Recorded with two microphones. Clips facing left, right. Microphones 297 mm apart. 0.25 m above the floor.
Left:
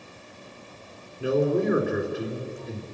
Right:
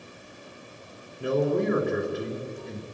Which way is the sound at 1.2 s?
5° left (ahead or behind).